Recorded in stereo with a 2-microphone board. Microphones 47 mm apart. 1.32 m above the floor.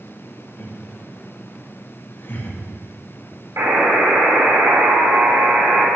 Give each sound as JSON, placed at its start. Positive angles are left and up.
{"t": 0.6, "sound": "laughter", "side_deg": 50, "distance_m": 2.0}
{"t": 3.6, "sound": "a buzzer", "side_deg": -75, "distance_m": 4.5}